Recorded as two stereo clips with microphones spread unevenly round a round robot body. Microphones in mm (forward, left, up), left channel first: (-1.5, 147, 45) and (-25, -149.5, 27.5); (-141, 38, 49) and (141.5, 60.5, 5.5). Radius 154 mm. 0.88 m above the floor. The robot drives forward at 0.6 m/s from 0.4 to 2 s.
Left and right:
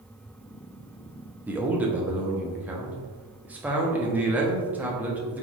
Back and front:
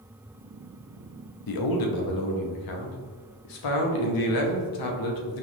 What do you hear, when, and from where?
1.5 s a man speaking: straight behind, 0.7 m